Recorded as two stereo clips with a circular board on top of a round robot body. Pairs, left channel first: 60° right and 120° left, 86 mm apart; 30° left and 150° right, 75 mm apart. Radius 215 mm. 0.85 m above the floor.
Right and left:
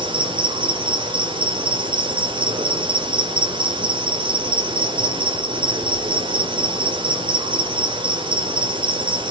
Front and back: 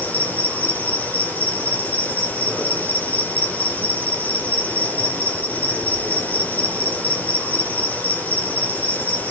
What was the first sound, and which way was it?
An insect, 100° left.